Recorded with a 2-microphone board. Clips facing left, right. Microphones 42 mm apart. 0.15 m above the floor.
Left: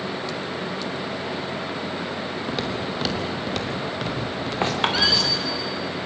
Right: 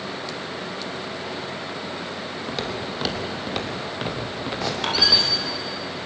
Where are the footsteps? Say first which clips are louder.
Left 1 dB; 5° left (ahead or behind), 3.5 m; by 5.5 s 20° right (ahead or behind), 5 m.